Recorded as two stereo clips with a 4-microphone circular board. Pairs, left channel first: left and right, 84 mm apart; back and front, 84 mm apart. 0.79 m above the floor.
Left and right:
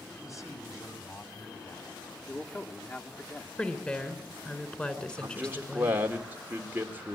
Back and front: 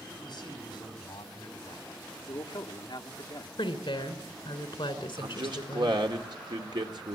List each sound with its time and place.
0.2 s a man speaking: 145° left, 4.5 m
2.3 s a man speaking: 155° left, 2 m
3.6 s a woman speaking: 165° left, 3 m
5.2 s a man speaking: 20° right, 2.5 m